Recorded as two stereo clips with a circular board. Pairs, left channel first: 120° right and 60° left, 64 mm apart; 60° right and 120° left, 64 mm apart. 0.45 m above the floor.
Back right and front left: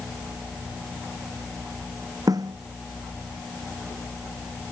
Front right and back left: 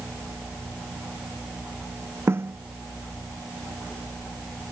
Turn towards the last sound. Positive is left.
turn(degrees=70)